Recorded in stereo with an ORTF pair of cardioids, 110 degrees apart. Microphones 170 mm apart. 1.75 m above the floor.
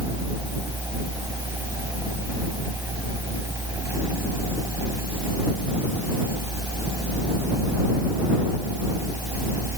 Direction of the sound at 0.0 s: 15° right.